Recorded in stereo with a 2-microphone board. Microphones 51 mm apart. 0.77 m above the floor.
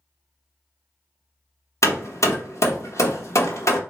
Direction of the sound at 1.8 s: 85° left.